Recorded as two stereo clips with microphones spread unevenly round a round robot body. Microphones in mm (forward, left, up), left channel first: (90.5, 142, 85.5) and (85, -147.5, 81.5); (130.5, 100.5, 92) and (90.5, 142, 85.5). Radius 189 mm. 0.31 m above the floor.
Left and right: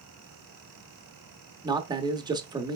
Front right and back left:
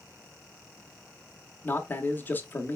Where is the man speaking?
45° right, 0.9 m.